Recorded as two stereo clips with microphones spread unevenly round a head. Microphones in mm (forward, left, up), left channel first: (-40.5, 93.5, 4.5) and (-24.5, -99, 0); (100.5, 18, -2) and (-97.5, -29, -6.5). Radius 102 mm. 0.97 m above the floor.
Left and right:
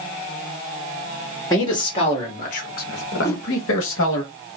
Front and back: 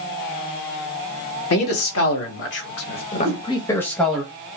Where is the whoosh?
170° left, 1.8 m.